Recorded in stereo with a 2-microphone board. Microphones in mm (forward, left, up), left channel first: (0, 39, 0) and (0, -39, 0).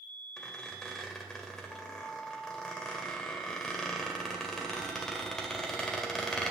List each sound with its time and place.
0.4 s a squeak: 10° left (ahead or behind), 2 m